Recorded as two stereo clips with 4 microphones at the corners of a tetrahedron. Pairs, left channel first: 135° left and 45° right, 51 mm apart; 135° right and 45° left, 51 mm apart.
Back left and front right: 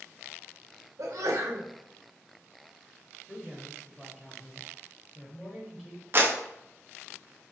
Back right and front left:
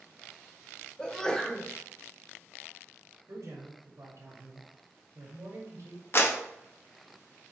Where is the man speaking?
55° left, 1.0 m.